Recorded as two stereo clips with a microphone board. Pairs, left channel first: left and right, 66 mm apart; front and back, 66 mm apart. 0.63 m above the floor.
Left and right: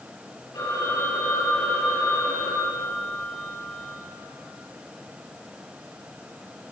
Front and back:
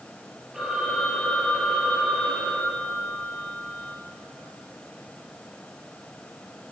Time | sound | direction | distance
0.5 | a phone ringing | 100° left | 10 m